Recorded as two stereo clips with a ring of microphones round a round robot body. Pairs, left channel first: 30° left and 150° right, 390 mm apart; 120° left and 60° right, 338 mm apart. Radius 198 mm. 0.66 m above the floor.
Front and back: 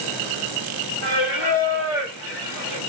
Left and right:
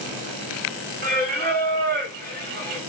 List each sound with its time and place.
1.0 s singing: 5° left, 1.6 m